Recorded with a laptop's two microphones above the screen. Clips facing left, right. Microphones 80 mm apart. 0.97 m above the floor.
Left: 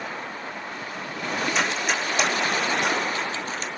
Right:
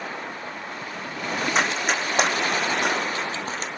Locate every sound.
1.6 s running footsteps: 55° right (ahead or behind), 3.5 m